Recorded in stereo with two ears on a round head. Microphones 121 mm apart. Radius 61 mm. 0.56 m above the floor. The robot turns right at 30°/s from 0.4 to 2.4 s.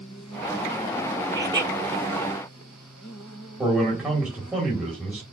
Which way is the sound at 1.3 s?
30° right (ahead or behind).